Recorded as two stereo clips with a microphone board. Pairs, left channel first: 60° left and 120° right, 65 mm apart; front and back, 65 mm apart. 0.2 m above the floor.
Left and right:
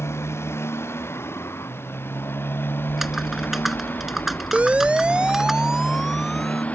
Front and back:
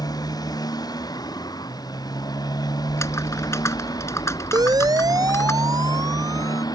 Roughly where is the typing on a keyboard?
Ahead right.